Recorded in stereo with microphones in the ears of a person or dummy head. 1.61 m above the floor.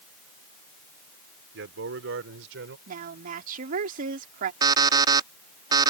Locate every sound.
1.5 s a man speaking: 85° right; by 2.8 s 75° right (ahead or behind)
2.9 s a woman speaking: 50° right (ahead or behind)
4.6 s an alarm clock: 25° right (ahead or behind)